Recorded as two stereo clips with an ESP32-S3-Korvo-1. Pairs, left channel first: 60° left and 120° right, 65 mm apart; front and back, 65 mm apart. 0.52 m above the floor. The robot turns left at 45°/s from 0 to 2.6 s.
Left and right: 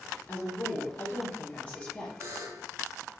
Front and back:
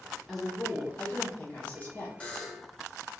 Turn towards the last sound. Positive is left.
turn(degrees=-90)